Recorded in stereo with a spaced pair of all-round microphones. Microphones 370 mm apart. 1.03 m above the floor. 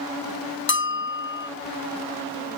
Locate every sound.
0.7 s a bell: 30° left (ahead or behind), 0.6 m